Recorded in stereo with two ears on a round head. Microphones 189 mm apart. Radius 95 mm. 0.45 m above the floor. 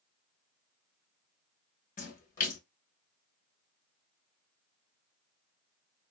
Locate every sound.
2.0 s a splash: 40° left (ahead or behind), 1.0 m